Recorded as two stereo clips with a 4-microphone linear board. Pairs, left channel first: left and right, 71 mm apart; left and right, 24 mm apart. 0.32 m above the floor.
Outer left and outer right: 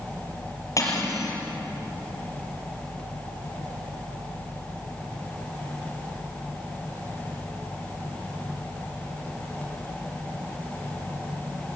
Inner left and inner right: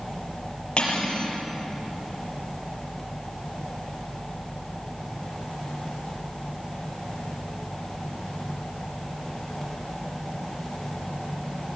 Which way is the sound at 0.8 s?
50° left (ahead or behind).